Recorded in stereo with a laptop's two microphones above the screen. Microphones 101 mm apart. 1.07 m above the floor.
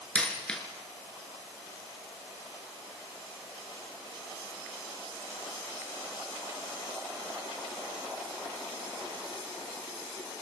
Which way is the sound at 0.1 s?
10° left (ahead or behind).